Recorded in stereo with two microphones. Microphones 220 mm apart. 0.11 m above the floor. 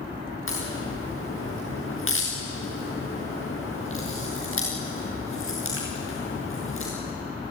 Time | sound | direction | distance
0.5 | a crack | 65° left (ahead or behind) | 6 m